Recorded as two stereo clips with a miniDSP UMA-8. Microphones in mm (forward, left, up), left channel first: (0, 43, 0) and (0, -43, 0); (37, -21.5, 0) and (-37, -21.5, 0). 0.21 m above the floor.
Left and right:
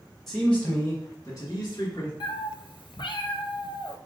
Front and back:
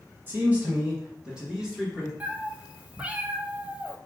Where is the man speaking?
170° left, 1.3 m; by 2.1 s 90° left, 1.8 m.